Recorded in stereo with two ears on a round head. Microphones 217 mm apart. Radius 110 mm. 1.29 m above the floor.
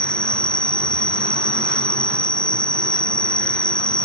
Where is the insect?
5° left (ahead or behind).